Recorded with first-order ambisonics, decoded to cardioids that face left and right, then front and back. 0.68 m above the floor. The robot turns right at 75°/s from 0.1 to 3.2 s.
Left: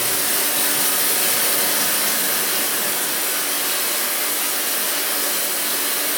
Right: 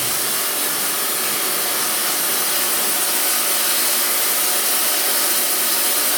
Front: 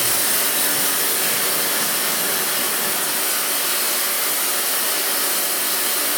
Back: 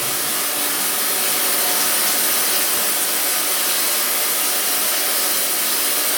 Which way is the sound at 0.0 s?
20° left.